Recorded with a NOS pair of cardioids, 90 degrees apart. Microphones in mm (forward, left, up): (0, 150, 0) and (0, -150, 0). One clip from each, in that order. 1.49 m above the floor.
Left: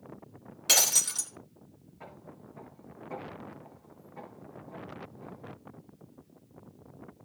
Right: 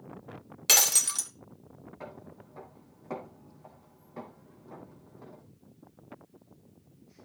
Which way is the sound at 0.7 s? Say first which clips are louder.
Right 1 dB; 25° right.